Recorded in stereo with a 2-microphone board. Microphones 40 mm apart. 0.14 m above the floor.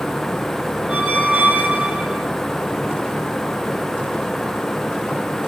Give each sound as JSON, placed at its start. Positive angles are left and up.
{"t": 0.9, "sound": "a squeak", "side_deg": -30, "distance_m": 1.5}